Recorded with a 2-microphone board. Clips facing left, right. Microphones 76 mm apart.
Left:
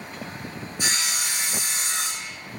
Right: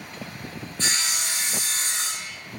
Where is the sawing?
15° left (ahead or behind), 6 m.